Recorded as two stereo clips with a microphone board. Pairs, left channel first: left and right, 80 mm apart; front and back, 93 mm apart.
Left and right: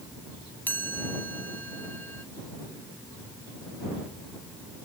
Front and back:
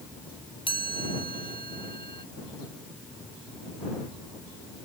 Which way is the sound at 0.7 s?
25° left.